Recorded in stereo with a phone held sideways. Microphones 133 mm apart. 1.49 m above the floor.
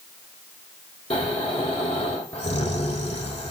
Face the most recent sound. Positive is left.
turn(degrees=45)  # may be behind; listen again after turning